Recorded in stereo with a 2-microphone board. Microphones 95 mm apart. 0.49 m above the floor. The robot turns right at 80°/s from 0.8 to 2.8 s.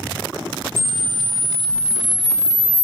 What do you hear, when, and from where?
0.8 s a camera shutter: 25° right (ahead or behind), 0.6 m; by 2.8 s 20° left (ahead or behind), 0.6 m